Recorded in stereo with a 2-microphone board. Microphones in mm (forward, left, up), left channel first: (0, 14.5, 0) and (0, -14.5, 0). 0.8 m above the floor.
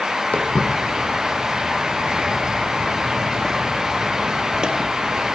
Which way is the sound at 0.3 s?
60° left (ahead or behind).